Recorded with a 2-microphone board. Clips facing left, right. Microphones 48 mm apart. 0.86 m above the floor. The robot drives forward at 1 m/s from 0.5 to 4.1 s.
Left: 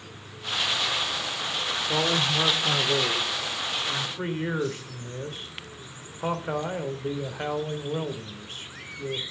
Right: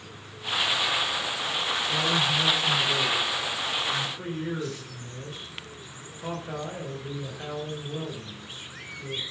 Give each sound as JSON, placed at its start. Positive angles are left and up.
{"t": 1.9, "sound": "a man speaking", "side_deg": 75, "distance_m": 3.0}